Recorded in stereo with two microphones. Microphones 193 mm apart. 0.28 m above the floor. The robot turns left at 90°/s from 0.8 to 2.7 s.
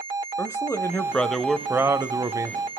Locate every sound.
0.4 s a man speaking: 15° left (ahead or behind), 0.9 m; by 2.6 s 15° right (ahead or behind), 0.9 m